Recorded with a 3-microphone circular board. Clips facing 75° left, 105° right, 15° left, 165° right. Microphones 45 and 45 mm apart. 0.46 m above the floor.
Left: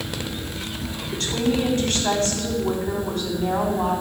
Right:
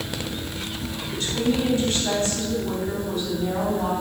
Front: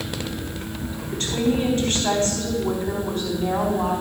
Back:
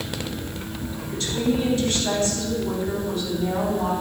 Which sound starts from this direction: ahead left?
A woman speaking, at 1.1 s.